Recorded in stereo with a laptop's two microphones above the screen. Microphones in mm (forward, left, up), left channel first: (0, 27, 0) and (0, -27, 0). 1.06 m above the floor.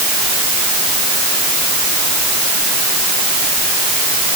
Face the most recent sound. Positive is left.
No sound to turn to.